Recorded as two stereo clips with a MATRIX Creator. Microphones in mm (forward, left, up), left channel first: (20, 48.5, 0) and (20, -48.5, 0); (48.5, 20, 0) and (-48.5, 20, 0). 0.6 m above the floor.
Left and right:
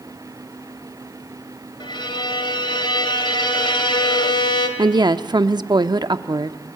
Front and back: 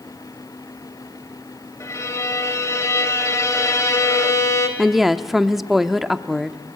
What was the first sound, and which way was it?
A violin, 60° left.